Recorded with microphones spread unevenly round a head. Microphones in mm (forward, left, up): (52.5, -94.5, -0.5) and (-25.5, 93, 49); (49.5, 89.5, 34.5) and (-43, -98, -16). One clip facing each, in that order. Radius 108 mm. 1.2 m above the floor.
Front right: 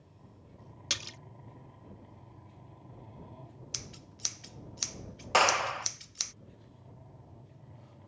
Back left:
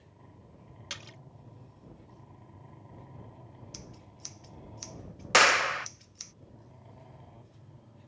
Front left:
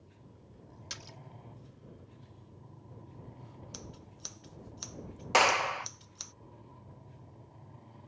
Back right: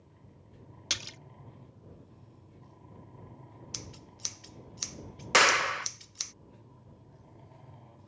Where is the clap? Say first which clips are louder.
Back left 1 dB, even; straight behind.